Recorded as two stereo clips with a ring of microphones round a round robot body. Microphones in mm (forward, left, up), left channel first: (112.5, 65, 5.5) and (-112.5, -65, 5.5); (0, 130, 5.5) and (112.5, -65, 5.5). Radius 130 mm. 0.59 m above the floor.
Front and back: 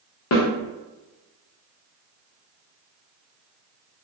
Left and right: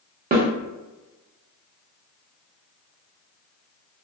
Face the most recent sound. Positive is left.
turn(degrees=-10)